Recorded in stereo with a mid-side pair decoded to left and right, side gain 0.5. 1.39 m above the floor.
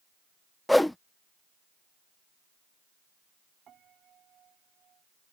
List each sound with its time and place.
0.7 s a whoosh: 10° left
3.7 s a piano: 55° right